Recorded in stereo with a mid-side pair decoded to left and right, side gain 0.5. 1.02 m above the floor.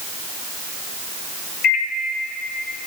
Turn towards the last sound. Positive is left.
turn(degrees=60)